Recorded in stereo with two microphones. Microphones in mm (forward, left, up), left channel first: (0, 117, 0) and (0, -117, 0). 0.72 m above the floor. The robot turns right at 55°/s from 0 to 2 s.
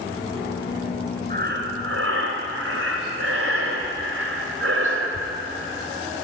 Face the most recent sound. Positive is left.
turn(degrees=-100)